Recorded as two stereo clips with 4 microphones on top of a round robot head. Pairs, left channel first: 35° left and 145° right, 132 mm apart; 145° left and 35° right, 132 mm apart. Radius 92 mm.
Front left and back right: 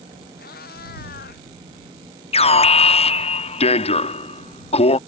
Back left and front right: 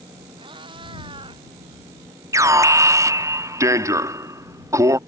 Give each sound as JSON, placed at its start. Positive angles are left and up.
{"t": 0.4, "sound": "a cat meowing", "azimuth_deg": 20}
{"t": 2.3, "sound": "an alarm", "azimuth_deg": 25}